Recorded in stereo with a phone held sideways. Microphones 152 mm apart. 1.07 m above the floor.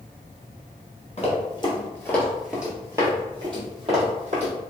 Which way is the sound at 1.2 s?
45° left (ahead or behind).